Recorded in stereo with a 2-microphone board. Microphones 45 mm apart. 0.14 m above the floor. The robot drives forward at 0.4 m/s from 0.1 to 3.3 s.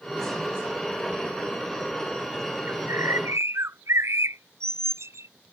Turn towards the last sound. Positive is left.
turn(degrees=-75)  # may be behind; listen again after turning